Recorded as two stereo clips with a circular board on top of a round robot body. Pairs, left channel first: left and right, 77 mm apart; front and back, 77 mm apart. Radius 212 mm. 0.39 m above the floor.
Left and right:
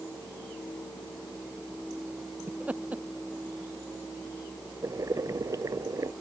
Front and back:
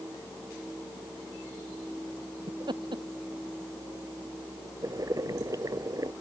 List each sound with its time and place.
2.5 s laughter: 160° right
4.8 s boiling: 135° right